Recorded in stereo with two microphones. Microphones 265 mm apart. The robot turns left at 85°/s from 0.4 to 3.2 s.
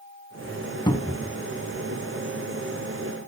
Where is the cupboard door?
20° left, 0.6 m; by 1.4 s 25° right, 0.6 m.